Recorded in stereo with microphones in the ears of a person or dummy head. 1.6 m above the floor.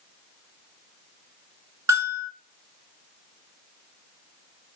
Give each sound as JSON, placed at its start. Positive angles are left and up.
{"t": 1.9, "sound": "a bell", "side_deg": -20, "distance_m": 1.9}